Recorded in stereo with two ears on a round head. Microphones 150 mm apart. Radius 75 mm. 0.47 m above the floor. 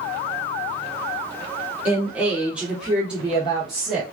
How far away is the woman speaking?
About 1.0 m.